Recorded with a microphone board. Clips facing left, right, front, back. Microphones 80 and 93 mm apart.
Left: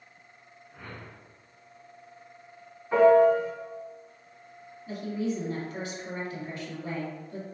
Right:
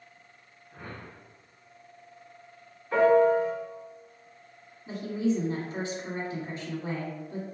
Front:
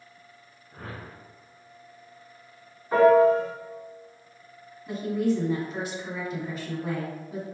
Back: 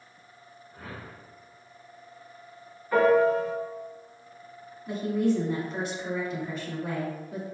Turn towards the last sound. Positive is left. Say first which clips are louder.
# right 3 dB, even
turn(degrees=-85)